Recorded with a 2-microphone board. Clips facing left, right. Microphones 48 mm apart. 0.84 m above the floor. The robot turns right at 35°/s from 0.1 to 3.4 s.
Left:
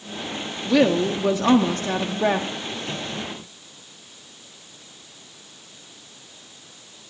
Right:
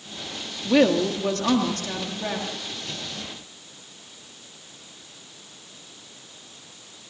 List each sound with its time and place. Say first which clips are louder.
0.7 s a woman speaking: even; 10° right, 1.5 m; by 2.5 s 55° left, 1.5 m